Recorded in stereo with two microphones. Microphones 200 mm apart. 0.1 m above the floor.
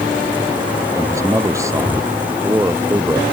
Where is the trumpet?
I don't hear a trumpet.